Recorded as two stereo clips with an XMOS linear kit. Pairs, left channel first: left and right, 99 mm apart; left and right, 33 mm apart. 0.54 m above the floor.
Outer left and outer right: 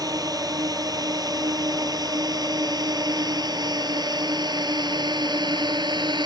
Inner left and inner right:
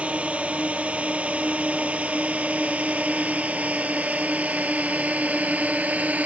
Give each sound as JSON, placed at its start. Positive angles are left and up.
{"t": 0.0, "sound": "a drone", "side_deg": -40}